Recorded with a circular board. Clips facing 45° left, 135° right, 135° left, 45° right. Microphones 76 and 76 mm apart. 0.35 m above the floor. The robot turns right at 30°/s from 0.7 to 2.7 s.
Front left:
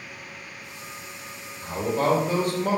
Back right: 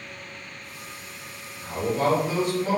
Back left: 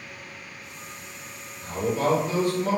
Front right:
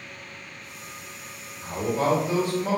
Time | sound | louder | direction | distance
1.6 | a man speaking | even, even | straight ahead | 1.3 m